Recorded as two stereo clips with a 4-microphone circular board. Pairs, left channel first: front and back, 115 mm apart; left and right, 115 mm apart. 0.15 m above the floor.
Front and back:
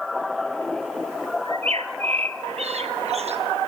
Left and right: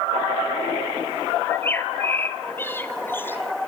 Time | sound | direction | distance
1.4 | a bird | 160° left | 1.5 m